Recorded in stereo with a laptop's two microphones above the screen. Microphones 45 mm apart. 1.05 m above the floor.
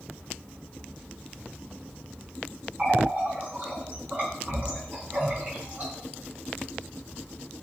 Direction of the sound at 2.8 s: 40° right (ahead or behind).